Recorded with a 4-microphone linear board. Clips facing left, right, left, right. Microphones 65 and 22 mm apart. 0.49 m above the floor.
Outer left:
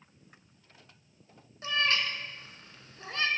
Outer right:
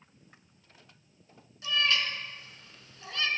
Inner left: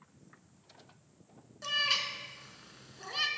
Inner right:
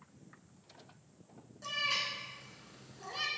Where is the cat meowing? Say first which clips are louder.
Even, inner left 4 dB; 35° left (ahead or behind), 0.6 m.